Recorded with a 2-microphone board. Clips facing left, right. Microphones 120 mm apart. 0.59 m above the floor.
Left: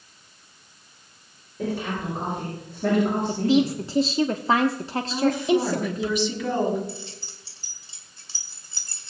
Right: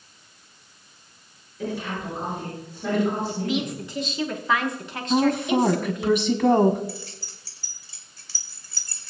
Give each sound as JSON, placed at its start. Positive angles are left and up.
{"t": 1.6, "sound": "a woman speaking", "side_deg": 45, "distance_m": 7.5}
{"t": 3.3, "sound": "a woman speaking", "side_deg": 30, "distance_m": 0.7}
{"t": 5.1, "sound": "a woman speaking", "side_deg": -50, "distance_m": 1.9}
{"t": 6.9, "sound": "keys jangling", "side_deg": 25, "distance_m": 1.6}